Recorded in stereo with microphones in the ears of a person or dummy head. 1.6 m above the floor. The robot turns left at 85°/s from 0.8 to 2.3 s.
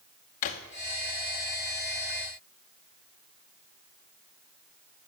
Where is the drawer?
40° left (ahead or behind), 0.8 m.